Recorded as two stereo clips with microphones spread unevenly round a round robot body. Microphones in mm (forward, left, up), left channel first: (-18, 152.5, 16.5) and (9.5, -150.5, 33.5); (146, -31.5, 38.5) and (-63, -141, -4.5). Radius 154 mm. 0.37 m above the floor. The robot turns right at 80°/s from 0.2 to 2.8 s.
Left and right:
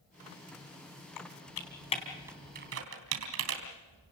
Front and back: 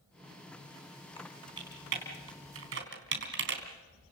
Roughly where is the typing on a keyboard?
Left.